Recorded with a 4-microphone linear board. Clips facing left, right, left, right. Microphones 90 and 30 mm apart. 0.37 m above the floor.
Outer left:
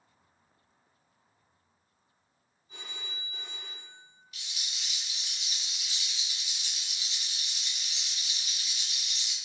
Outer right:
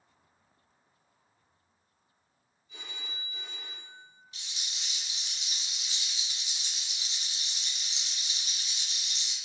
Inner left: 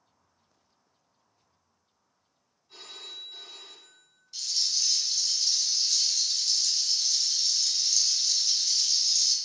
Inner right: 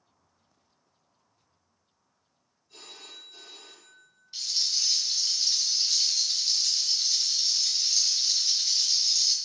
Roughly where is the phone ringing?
Left.